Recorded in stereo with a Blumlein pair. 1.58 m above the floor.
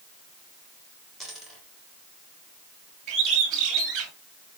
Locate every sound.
1.2 s a dropped coin: straight ahead, 3.5 m
3.1 s a bird: 30° right, 2.5 m